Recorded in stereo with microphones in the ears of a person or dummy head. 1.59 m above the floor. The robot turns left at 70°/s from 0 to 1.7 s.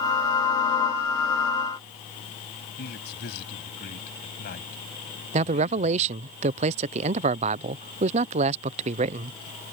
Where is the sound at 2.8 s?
65° left (ahead or behind).